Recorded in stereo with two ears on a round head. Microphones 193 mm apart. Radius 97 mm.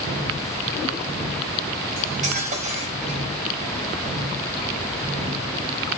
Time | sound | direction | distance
2.0 | cutlery clinking | 35° right (ahead or behind) | 4 m